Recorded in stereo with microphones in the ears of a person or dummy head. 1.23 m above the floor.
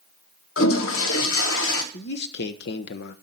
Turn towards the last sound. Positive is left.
turn(degrees=55)  # may be behind; listen again after turning